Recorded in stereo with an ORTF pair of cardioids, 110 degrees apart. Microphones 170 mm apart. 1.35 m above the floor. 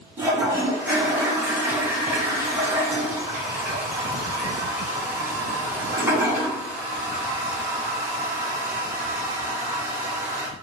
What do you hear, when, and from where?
0.2 s a toilet flushing: 15° right, 1.1 m